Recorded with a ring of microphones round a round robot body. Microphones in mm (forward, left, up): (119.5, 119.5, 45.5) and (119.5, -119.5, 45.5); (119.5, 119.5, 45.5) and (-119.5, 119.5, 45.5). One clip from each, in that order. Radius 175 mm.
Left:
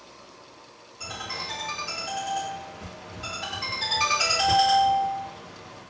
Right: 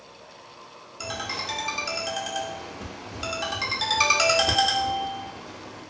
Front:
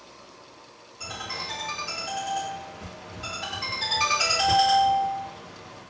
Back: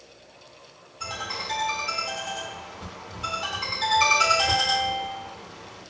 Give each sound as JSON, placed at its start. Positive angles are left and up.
{"t": 1.0, "sound": "a ringtone", "azimuth_deg": -70, "distance_m": 0.7}